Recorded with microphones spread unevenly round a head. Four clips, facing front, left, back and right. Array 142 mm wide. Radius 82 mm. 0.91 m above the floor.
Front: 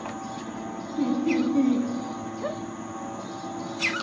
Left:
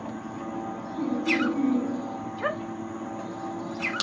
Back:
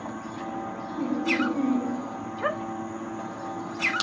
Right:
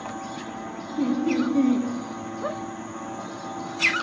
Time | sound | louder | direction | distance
1.0 | laughter | right 3 dB, front 3 dB | 95° right | 0.6 m